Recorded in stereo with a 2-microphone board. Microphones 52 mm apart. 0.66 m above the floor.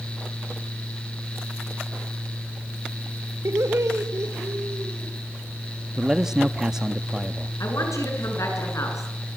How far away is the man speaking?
About 0.7 m.